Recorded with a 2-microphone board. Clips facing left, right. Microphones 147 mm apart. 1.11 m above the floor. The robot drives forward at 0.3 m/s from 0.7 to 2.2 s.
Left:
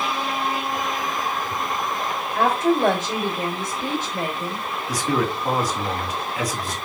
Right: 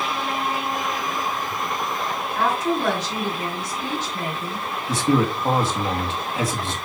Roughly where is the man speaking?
Right.